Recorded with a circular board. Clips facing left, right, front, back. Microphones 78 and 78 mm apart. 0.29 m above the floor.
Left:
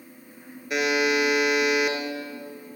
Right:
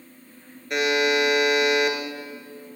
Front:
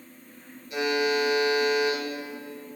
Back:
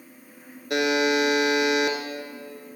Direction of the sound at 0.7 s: 175° left.